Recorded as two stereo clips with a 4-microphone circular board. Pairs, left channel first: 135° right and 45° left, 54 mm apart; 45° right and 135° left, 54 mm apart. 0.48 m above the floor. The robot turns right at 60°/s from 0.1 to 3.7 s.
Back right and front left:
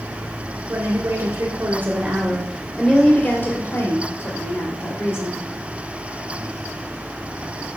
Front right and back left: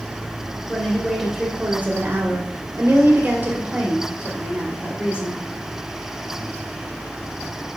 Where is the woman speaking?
20° left, 2 m; by 5.4 s 160° right, 2 m.